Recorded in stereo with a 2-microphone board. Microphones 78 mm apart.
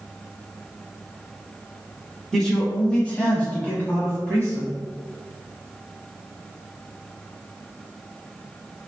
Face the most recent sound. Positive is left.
turn(degrees=20)  # may be behind; listen again after turning